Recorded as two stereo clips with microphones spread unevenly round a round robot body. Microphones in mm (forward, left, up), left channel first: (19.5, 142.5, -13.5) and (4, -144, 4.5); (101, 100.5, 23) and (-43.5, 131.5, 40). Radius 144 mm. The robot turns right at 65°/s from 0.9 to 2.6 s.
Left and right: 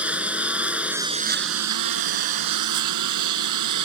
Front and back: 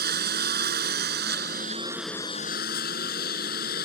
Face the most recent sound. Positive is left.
turn(degrees=-70)